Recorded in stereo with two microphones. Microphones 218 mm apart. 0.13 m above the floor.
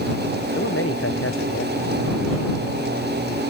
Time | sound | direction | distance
0.6 | a man speaking | 75° left (ahead or behind) | ?